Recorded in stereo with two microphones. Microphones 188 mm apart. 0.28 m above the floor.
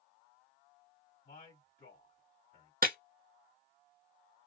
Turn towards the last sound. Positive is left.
turn(degrees=-50)  # may be behind; listen again after turning